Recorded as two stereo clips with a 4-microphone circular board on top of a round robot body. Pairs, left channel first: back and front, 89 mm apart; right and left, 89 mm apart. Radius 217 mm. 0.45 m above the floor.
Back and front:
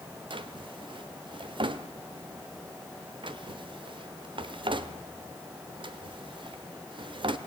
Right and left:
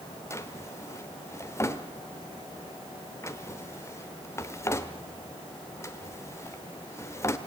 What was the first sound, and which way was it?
A drawer, 30° right.